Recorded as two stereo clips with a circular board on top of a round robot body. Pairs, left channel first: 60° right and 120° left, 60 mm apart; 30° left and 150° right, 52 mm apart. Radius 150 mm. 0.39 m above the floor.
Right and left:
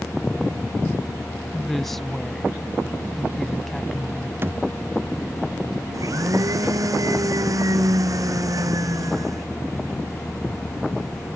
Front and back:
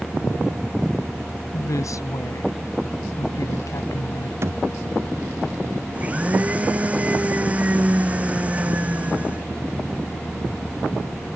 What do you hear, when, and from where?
1.5 s a woman speaking: 25° left
4.4 s a thud: 170° left
5.9 s a blender: 145° left